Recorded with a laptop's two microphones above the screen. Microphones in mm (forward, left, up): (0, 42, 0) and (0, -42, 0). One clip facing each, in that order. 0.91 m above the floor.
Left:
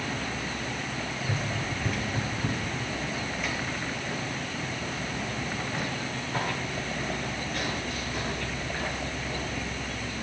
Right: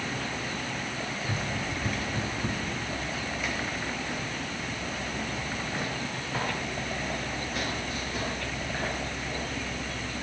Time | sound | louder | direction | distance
1.2 | running footsteps | left 1 dB | centre (ahead or behind) | 7.5 m